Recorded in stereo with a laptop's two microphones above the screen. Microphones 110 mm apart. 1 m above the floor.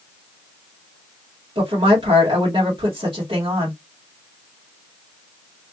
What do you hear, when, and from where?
1.6 s a woman speaking: 45° right (ahead or behind), 1.7 m